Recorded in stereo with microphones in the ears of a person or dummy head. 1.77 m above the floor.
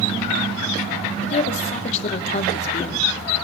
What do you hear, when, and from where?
1.2 s a woman speaking: 40° left (ahead or behind), 2.5 m